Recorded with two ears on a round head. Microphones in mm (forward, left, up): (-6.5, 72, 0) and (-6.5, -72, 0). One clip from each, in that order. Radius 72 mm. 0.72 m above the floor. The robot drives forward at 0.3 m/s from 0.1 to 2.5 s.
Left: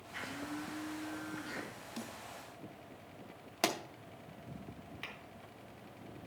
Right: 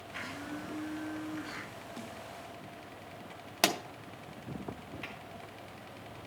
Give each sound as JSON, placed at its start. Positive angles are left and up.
{"t": 0.1, "sound": "a blender", "side_deg": -5, "distance_m": 3.0}
{"t": 2.0, "sound": "a snare drum", "side_deg": 65, "distance_m": 1.7}
{"t": 3.6, "sound": "a pop", "side_deg": -20, "distance_m": 0.7}
{"t": 5.0, "sound": "tapping", "side_deg": 25, "distance_m": 3.0}